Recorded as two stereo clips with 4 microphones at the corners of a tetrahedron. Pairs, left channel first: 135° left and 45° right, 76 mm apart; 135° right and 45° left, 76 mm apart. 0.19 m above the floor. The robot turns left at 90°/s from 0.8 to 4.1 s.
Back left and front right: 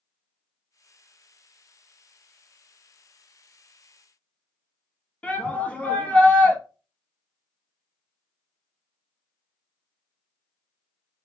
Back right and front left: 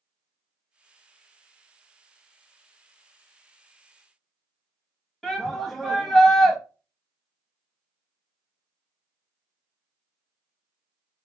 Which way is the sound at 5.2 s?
140° left.